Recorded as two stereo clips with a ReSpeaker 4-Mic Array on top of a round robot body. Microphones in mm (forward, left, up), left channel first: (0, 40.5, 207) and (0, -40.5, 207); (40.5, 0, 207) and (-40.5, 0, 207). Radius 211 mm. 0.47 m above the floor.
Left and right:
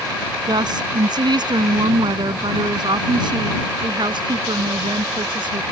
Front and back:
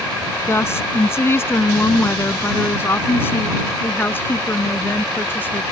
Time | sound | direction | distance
0.5 | a woman speaking | 60° right | ?